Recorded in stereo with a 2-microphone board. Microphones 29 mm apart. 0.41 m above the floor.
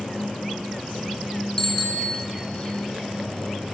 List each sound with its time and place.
1.6 s a bicycle bell: 20° left (ahead or behind), 3.5 m